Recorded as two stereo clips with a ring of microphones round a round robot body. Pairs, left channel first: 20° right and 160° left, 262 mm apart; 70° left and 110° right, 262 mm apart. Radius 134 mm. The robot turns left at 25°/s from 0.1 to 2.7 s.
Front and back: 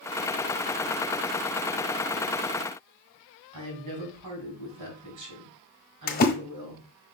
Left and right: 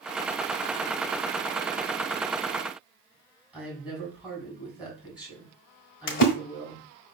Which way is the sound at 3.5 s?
165° left.